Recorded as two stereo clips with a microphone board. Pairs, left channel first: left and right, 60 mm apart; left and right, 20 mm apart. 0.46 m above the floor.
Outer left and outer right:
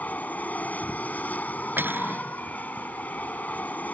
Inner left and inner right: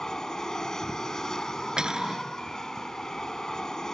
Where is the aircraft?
25° left (ahead or behind).